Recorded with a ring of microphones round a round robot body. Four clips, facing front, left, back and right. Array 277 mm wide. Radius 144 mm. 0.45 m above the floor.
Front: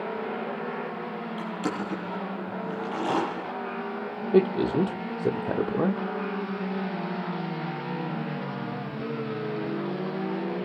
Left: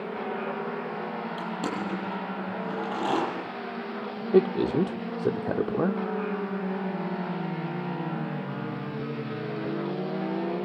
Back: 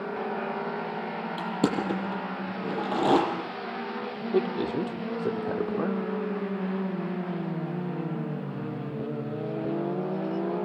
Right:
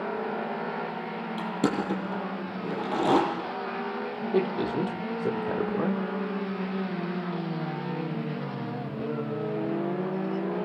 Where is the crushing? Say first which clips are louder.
Right 6 dB, back 5 dB; 155° right, 9.5 m.